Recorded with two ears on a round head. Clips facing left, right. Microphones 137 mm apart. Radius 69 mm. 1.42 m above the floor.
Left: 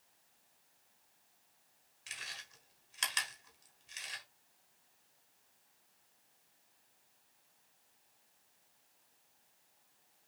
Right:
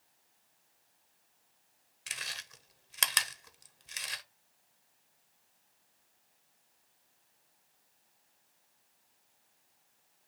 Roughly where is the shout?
I don't hear a shout.